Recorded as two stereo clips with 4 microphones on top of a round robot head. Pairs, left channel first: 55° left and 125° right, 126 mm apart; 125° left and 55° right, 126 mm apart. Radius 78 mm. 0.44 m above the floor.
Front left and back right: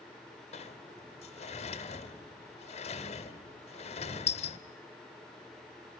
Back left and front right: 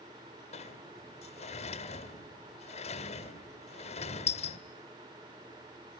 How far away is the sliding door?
About 1.8 m.